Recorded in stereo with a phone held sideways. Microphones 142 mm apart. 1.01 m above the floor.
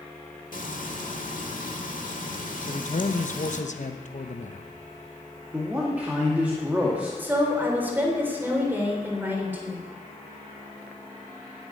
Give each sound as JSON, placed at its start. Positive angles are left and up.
{"t": 0.5, "sound": "frying", "side_deg": 70, "distance_m": 1.7}
{"t": 2.6, "sound": "a man speaking", "side_deg": 60, "distance_m": 1.0}
{"t": 5.5, "sound": "a man speaking", "side_deg": -10, "distance_m": 2.0}
{"t": 7.2, "sound": "a woman speaking", "side_deg": -15, "distance_m": 3.5}